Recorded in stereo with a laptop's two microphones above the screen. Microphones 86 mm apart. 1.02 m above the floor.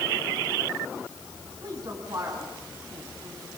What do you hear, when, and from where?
1.6 s a woman speaking: 55° right (ahead or behind), 9 m